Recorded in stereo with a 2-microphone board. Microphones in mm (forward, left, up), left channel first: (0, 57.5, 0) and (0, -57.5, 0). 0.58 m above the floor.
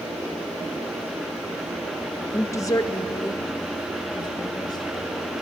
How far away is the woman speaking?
About 0.6 m.